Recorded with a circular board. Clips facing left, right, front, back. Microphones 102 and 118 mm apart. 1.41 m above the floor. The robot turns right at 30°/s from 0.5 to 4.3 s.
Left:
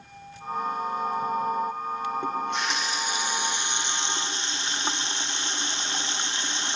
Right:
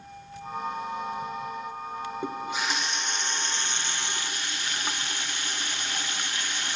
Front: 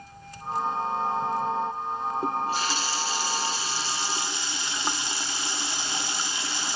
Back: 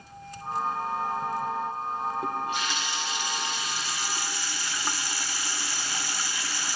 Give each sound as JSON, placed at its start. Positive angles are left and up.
{"t": 2.2, "sound": "a running tap", "azimuth_deg": -15, "distance_m": 0.7}